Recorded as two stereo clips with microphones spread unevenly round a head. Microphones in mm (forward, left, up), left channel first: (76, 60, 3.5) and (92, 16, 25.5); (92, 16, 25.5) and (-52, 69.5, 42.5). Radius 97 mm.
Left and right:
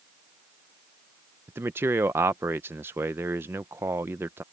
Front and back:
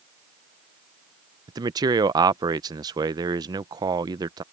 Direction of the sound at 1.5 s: 135° right.